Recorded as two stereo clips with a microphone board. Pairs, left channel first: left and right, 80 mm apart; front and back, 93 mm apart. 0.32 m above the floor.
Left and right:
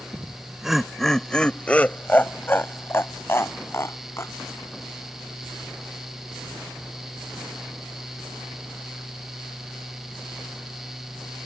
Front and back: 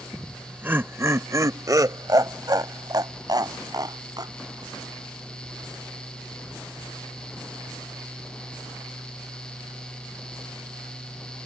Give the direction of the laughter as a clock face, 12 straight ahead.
4 o'clock.